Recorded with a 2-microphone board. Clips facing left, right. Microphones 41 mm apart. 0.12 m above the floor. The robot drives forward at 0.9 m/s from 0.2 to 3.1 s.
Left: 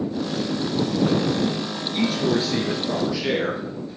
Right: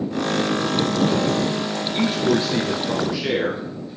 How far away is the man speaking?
About 2 m.